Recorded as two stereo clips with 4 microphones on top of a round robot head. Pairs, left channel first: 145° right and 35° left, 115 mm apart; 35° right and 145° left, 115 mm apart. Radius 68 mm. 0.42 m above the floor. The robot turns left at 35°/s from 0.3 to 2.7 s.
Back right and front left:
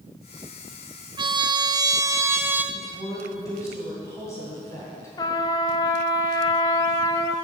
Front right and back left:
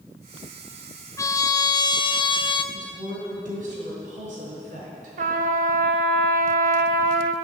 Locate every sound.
1.2 s a trumpet: 15° left, 0.5 m; by 2.6 s 35° right, 0.5 m
2.7 s a woman speaking: 150° left, 3 m
5.2 s a trumpet: 155° left, 0.6 m